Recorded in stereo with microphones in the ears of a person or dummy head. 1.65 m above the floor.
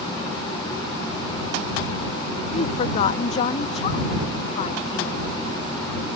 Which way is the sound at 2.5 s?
40° left (ahead or behind).